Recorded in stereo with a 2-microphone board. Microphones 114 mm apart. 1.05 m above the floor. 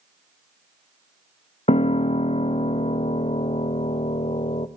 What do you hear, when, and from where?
1.7 s a piano: 70° left (ahead or behind), 0.5 m